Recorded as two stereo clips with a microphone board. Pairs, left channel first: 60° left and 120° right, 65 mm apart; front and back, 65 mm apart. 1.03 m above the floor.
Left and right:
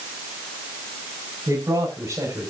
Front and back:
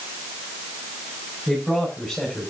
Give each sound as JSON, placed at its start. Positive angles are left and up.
{"t": 1.5, "sound": "a man speaking", "azimuth_deg": -85, "distance_m": 4.5}